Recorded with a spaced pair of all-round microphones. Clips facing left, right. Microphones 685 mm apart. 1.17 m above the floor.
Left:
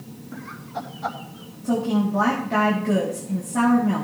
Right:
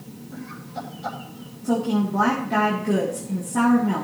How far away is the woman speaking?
About 3 m.